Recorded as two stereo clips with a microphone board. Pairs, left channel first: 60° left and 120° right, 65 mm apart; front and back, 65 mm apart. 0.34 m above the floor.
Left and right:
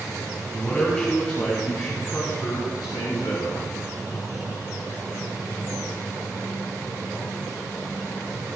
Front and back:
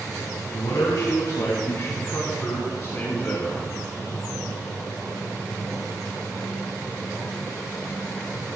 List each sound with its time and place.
0.5 s a man speaking: 10° right, 2.5 m; by 3.6 s 65° left, 3.5 m